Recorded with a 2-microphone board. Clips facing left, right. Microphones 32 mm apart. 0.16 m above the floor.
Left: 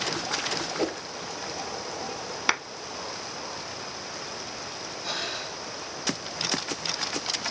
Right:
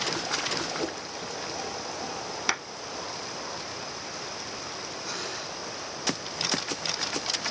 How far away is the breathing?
About 2.5 m.